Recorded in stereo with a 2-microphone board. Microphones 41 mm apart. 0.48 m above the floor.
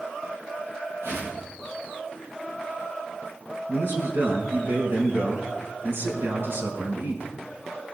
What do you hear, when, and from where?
1.0 s a whoosh: 80° right, 6 m
3.7 s a man speaking: 65° right (ahead or behind), 4.5 m